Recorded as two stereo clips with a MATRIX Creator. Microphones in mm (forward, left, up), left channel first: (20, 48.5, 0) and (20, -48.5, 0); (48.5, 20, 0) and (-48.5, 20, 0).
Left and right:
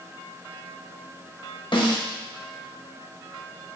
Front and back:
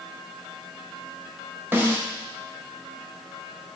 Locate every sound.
1.7 s a snare drum: 115° left, 1.2 m